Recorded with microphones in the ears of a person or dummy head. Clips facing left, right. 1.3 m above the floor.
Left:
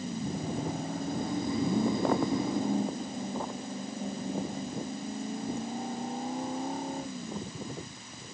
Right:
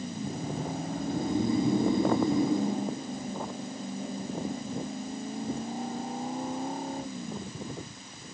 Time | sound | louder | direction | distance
0.9 | snoring | right 6 dB | 20° right (ahead or behind) | 5 m